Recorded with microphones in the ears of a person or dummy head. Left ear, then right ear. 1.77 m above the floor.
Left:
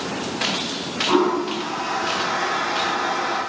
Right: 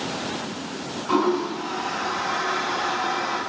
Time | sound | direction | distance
1.1 | a toilet flushing | centre (ahead or behind) | 0.5 m